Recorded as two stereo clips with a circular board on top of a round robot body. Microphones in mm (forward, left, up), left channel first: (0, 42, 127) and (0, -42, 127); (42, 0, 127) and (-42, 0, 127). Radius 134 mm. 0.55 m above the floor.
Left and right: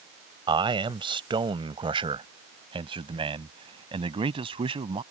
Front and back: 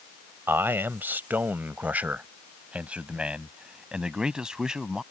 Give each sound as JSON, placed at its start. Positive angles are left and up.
{"t": 0.5, "sound": "a man speaking", "azimuth_deg": -115}